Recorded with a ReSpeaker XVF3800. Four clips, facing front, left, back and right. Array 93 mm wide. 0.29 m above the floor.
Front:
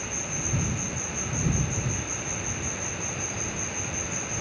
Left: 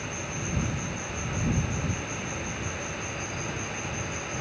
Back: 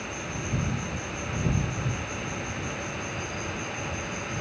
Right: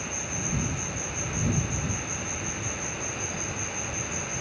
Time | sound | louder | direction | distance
0.0 | an insect | even, back 1 dB | 135° left | ?